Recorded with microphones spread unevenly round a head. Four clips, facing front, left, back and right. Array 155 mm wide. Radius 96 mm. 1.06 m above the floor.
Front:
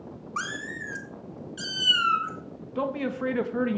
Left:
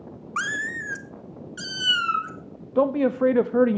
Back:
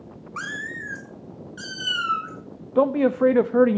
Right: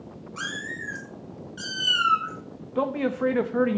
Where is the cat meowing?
50° left, 0.9 m; by 2.3 s 85° left, 1.6 m.